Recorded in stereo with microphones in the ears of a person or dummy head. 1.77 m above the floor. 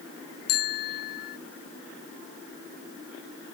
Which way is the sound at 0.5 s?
50° left (ahead or behind).